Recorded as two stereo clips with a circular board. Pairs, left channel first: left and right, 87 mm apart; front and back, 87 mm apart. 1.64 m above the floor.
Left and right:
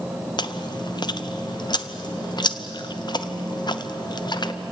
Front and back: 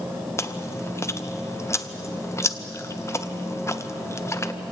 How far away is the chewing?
About 0.8 m.